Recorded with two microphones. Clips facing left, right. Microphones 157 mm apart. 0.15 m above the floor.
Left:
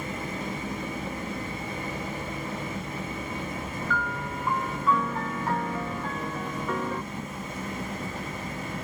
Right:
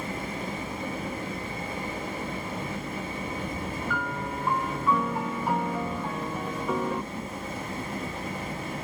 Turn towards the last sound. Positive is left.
turn(degrees=-10)  # may be behind; listen again after turning